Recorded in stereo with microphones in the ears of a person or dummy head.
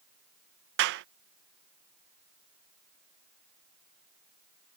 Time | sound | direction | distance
0.8 | a clap | 70° right (ahead or behind) | ?